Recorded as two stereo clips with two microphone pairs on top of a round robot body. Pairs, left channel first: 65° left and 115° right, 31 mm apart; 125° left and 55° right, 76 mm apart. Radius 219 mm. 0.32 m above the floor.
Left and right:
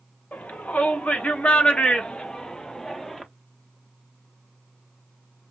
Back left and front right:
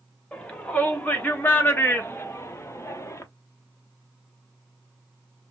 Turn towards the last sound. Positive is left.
turn(degrees=130)